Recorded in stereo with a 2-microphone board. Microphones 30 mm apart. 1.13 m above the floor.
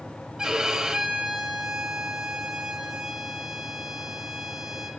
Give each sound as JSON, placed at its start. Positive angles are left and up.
{"t": 0.4, "sound": "a violin", "side_deg": -25, "distance_m": 3.0}